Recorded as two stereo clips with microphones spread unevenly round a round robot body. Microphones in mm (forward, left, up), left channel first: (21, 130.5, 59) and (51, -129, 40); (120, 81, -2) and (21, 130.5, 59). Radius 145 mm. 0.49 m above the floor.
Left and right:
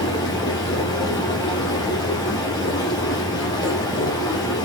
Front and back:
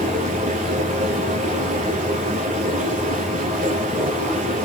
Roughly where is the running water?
Behind.